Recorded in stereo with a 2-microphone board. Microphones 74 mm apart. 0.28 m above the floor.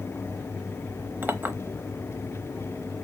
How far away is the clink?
About 0.8 m.